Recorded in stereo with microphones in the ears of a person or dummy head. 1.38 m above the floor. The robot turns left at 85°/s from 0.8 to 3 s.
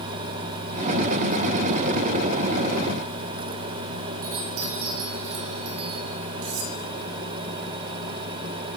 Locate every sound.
4.2 s a chime: 80° right, 5 m
6.4 s cutlery clinking: 75° right (ahead or behind), 4.5 m